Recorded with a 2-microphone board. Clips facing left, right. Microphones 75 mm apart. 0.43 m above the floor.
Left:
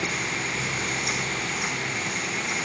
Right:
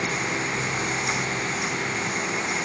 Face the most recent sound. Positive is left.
No sound to turn to.